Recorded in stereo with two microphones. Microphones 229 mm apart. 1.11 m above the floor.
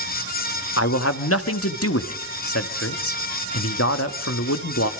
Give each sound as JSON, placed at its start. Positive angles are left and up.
{"t": 0.8, "sound": "a man speaking", "side_deg": 85, "distance_m": 1.7}